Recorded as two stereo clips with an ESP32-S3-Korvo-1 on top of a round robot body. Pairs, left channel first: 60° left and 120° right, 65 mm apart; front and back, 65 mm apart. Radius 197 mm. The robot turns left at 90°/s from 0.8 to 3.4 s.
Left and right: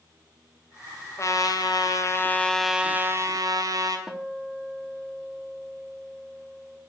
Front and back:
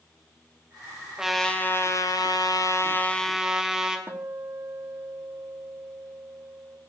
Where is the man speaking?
I don't hear a man speaking.